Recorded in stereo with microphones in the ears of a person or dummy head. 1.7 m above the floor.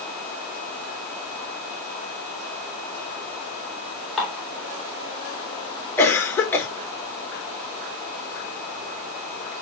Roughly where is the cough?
Centre.